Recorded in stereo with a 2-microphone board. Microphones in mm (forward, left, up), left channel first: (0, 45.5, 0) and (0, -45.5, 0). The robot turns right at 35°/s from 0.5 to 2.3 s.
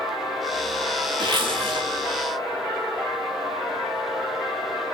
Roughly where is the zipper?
Right.